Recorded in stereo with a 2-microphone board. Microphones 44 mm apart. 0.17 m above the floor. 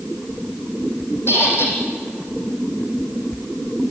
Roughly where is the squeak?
Left.